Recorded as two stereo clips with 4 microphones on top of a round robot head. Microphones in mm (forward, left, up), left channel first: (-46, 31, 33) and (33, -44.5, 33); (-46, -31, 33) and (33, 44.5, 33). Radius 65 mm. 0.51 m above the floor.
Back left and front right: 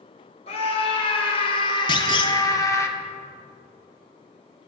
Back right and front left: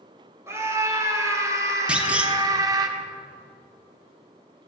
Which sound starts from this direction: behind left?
A clunk, at 1.9 s.